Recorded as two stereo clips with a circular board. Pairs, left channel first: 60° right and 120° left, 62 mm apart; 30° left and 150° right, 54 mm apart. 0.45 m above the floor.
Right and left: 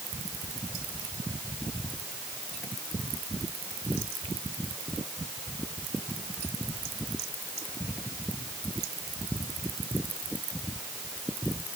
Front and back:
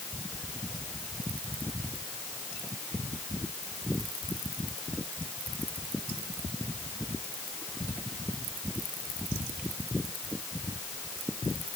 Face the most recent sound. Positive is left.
No sound to turn to.